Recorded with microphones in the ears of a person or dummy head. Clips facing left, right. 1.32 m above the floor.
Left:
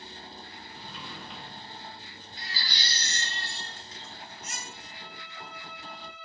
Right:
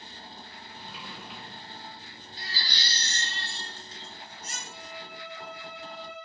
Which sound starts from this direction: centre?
A sliding door, at 0.8 s.